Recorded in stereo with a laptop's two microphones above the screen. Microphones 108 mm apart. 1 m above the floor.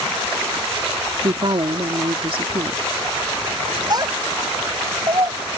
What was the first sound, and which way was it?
A woman speaking, 55° right (ahead or behind).